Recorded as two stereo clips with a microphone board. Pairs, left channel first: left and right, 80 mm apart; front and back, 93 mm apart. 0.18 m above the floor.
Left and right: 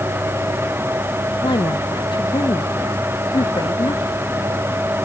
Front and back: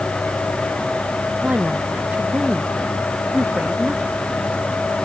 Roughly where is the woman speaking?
Left.